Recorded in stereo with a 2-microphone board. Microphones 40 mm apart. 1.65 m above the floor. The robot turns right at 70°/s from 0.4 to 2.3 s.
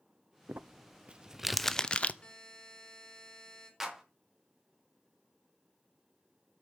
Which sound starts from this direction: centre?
A clap, at 3.8 s.